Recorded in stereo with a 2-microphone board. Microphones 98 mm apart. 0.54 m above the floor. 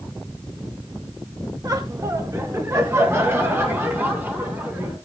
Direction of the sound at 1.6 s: 40° right (ahead or behind).